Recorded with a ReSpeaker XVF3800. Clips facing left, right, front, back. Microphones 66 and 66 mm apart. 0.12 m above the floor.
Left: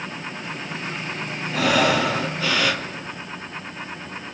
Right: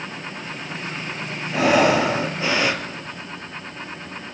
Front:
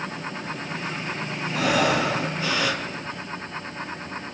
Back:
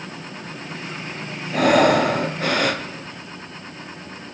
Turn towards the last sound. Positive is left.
turn(degrees=-150)